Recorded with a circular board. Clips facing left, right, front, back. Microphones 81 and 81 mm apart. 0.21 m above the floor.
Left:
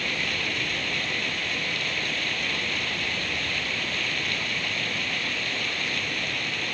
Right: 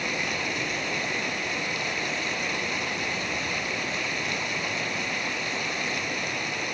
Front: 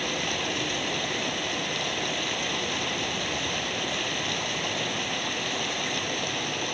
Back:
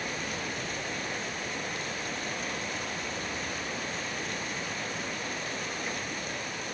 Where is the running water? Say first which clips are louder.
Right 1 dB, front 5 dB; 15° right.